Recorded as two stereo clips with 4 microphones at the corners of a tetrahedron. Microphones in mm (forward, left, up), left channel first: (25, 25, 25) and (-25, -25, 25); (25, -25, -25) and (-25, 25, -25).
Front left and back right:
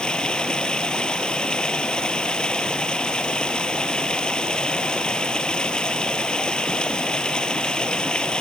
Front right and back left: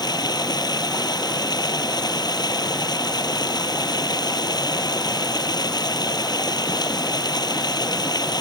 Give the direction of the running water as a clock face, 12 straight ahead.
1 o'clock.